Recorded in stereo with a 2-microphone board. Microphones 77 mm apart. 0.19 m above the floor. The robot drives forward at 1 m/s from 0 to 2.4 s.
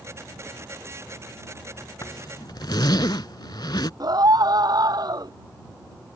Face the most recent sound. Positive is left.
turn(degrees=-55)  # may be behind; listen again after turning